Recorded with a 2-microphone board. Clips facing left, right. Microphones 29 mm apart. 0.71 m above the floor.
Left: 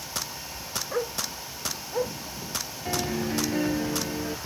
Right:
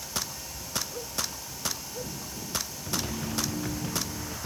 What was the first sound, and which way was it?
A dog barking, 60° left (ahead or behind).